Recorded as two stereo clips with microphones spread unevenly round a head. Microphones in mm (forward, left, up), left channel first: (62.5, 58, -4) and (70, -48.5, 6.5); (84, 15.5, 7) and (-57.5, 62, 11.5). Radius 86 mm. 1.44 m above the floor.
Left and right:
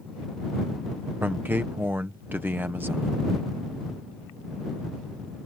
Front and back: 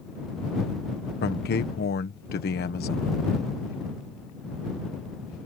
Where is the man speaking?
10° right.